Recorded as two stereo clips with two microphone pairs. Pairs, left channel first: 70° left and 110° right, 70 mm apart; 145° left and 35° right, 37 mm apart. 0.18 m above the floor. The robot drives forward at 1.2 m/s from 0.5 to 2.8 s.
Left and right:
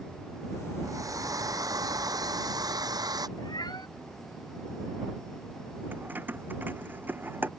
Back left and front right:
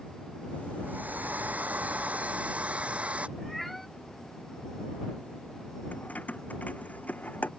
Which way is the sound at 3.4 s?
55° left.